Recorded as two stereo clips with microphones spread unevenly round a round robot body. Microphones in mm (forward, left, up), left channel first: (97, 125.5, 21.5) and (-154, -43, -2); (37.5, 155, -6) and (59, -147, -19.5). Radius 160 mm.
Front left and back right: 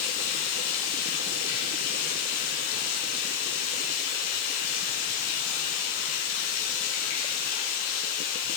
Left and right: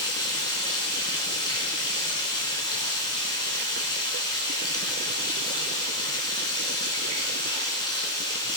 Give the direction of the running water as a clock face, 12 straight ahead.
11 o'clock.